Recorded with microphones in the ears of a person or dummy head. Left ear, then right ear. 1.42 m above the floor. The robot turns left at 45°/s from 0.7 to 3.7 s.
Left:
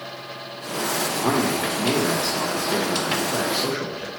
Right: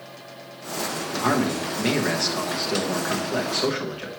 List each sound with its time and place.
1.1 s a man speaking: 50° right, 1.2 m; by 4.1 s 165° right, 1.2 m